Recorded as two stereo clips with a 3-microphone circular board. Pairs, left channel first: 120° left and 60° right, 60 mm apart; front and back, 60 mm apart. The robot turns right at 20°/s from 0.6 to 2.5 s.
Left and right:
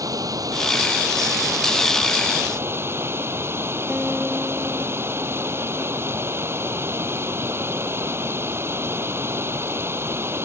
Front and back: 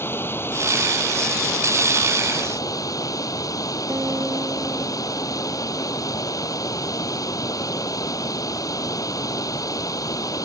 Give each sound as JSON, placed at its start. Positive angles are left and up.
{"t": 0.0, "sound": "running water", "azimuth_deg": -50}
{"t": 3.9, "sound": "a guitar", "azimuth_deg": -145}